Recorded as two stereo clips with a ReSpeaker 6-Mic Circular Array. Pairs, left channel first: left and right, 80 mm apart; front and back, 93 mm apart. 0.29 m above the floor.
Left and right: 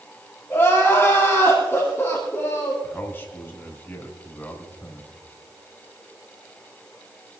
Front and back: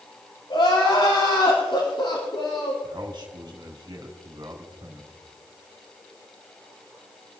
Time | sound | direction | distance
0.5 | crying | 25° left | 6.5 m
2.8 | a man speaking | 150° left | 3.5 m